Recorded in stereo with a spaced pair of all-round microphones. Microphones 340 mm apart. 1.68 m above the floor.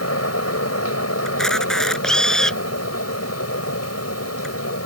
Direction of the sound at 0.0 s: 45° left (ahead or behind).